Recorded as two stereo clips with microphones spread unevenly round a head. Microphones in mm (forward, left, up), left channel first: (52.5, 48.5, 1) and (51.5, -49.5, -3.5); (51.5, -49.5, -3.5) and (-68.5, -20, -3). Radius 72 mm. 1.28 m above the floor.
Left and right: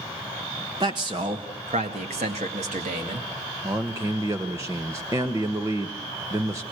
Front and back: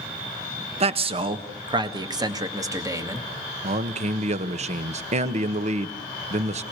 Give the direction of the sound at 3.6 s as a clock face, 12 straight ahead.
5 o'clock.